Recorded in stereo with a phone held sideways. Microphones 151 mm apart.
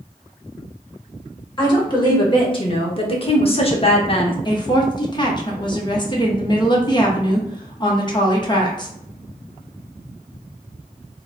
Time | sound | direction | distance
1.6 | a woman speaking | 30° left (ahead or behind) | 1.8 m
4.5 | a woman speaking | 30° left (ahead or behind) | 1.0 m